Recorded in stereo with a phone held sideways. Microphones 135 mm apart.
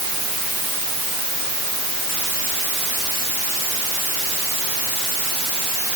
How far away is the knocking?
I don't hear knocking.